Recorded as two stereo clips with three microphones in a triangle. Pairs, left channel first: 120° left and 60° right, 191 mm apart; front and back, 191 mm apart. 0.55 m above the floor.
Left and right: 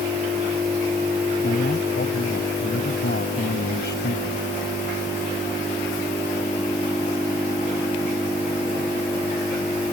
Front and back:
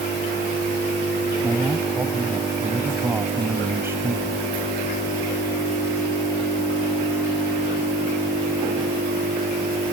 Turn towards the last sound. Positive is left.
turn(degrees=105)